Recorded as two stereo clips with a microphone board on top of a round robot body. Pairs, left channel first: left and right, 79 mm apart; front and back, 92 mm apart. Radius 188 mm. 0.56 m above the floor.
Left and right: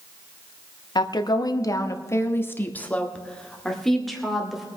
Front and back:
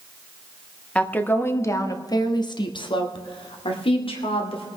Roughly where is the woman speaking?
Left.